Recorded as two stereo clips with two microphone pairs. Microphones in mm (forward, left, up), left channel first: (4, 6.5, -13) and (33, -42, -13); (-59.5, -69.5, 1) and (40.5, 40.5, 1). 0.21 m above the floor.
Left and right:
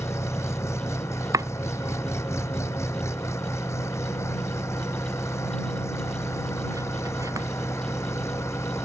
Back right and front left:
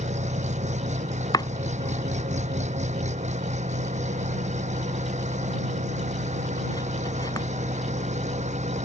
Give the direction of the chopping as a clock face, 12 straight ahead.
2 o'clock.